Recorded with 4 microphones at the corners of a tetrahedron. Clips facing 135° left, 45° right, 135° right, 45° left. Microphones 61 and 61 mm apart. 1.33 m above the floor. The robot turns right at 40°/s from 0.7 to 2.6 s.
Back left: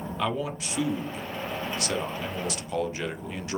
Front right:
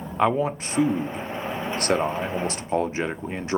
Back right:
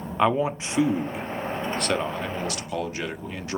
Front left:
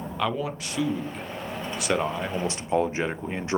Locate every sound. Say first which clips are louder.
0.2 s a man speaking: front right 8 dB, back right 6 dB; 80° right, 0.6 m; by 3.6 s 5° right, 0.6 m